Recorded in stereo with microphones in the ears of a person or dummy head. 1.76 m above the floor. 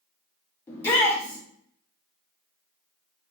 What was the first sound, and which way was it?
A shout, 10° left (ahead or behind).